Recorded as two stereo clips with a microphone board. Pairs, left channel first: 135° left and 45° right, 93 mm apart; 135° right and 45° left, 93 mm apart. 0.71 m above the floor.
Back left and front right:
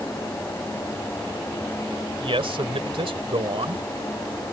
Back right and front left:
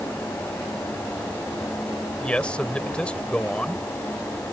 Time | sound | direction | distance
2.2 | a man speaking | 55° right | ?